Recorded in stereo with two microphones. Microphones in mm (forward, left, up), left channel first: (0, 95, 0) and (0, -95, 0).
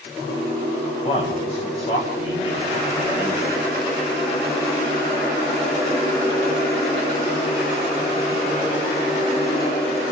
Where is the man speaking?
30° left (ahead or behind), 8 m.